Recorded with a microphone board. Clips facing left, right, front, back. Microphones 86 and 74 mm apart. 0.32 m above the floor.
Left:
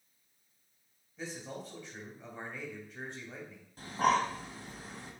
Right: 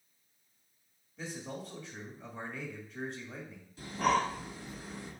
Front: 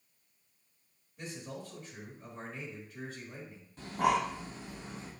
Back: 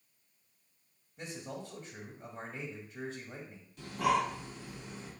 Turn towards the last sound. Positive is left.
turn(degrees=45)